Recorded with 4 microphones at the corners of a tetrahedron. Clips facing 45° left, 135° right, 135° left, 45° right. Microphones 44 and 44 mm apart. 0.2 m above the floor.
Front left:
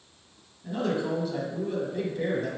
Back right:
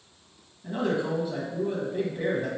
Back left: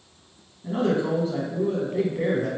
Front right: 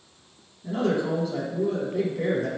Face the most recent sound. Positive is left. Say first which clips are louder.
# back right 1 dB, back left 1 dB
turn(degrees=170)